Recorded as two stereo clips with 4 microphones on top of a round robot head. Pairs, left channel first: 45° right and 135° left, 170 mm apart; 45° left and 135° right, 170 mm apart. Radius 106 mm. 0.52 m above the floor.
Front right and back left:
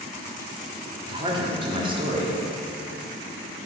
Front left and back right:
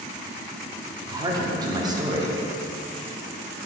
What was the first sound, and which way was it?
A man speaking, 175° left.